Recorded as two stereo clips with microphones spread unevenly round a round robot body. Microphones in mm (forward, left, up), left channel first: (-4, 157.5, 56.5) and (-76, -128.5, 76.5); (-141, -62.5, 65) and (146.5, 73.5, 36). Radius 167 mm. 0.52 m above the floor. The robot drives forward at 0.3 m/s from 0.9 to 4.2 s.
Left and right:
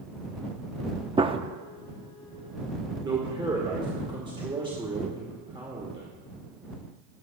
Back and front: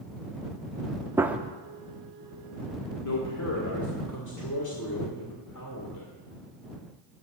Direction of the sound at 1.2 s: 40° right.